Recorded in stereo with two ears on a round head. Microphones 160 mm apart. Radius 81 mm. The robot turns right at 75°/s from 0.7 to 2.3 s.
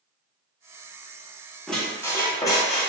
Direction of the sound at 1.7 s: Centre (ahead or behind).